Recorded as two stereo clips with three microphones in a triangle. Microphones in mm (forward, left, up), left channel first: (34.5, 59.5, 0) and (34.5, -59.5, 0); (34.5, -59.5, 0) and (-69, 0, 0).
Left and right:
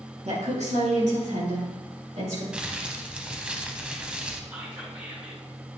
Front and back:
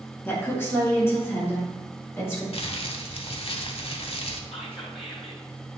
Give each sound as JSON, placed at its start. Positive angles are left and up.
{"t": 0.2, "sound": "a woman speaking", "azimuth_deg": -100, "distance_m": 2.5}
{"t": 2.5, "sound": "crumpling", "azimuth_deg": -10, "distance_m": 0.7}
{"t": 4.5, "sound": "whispering", "azimuth_deg": -15, "distance_m": 3.0}